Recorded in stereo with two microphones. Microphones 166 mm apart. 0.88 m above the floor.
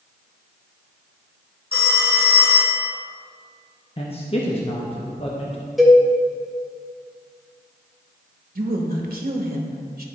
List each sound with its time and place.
1.7 s a phone ringing: 65° left (ahead or behind), 0.7 m
4.0 s a man speaking: 35° left (ahead or behind), 0.8 m
5.8 s a cowbell: centre (ahead or behind), 1.2 m
8.6 s a woman speaking: 60° right (ahead or behind), 1.0 m